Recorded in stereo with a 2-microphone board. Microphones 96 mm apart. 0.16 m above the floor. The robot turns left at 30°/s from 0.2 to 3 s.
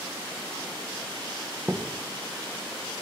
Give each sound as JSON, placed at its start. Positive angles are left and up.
{"t": 1.7, "sound": "a thud", "side_deg": -10, "distance_m": 4.0}